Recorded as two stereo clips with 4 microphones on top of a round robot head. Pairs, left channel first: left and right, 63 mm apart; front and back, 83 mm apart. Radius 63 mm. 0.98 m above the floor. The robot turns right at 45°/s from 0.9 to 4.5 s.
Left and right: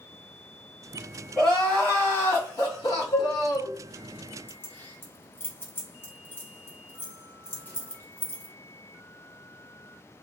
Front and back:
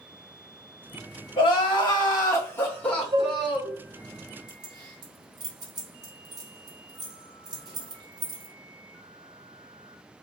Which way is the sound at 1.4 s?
5° left.